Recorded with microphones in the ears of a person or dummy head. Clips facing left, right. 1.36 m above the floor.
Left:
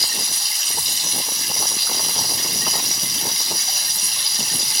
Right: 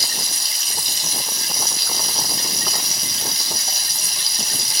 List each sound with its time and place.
0.0 s running water: 40° right (ahead or behind), 1.1 m